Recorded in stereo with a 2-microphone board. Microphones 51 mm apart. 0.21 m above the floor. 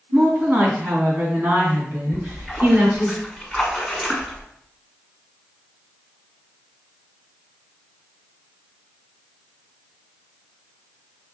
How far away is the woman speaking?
About 1.8 m.